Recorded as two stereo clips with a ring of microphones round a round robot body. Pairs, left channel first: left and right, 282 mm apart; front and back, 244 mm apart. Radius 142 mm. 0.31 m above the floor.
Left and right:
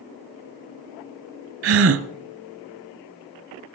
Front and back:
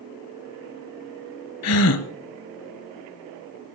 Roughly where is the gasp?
Ahead right.